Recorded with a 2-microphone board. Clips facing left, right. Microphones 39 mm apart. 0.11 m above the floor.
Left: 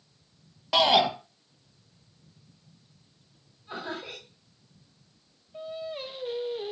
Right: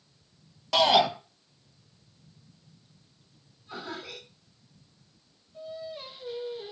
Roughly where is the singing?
Left.